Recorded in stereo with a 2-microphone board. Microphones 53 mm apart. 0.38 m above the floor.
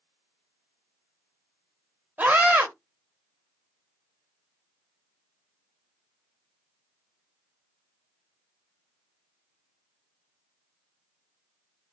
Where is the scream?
30° right (ahead or behind), 1.7 m.